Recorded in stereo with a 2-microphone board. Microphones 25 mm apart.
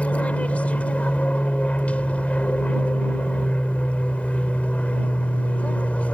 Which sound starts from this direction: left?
An aircraft, at 0.0 s.